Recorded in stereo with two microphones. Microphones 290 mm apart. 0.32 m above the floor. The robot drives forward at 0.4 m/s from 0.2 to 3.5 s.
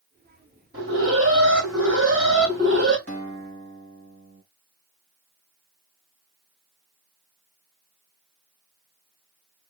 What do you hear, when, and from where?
0.7 s an alarm: 45° right (ahead or behind), 3 m; by 3.0 s 40° right (ahead or behind), 3 m
3.1 s a guitar: 50° right (ahead or behind), 2.5 m; by 4.4 s 45° right (ahead or behind), 2.5 m